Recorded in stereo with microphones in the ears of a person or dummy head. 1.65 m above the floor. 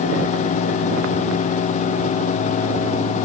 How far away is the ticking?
I don't hear ticking.